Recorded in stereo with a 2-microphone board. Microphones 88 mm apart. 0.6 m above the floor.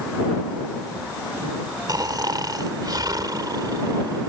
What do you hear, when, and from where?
1.9 s snoring: 50° right (ahead or behind)